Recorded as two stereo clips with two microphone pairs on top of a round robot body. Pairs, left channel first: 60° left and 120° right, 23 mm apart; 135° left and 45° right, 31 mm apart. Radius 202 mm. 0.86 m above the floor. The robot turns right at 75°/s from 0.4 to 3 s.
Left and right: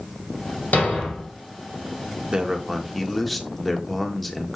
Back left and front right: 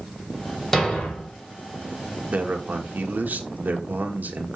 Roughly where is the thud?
Ahead left.